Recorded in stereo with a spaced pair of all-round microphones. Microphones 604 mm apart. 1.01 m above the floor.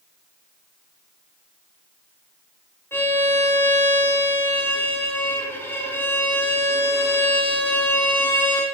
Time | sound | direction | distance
2.9 | a violin | 5° left (ahead or behind) | 4.5 m